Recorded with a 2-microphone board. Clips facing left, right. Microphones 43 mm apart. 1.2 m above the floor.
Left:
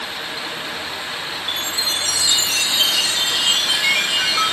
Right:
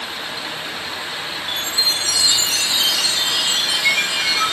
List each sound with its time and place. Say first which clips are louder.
1.5 s a chime: right 2 dB; 35° left (ahead or behind), 8.5 m